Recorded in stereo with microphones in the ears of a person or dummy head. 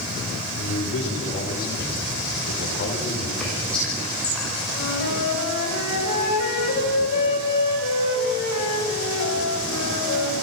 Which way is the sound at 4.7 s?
80° left.